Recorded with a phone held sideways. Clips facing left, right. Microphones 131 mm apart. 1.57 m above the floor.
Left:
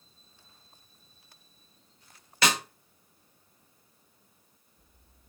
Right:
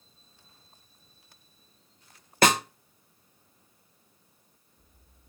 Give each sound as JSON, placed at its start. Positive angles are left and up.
{"t": 2.4, "sound": "a snare drum", "side_deg": -50, "distance_m": 0.6}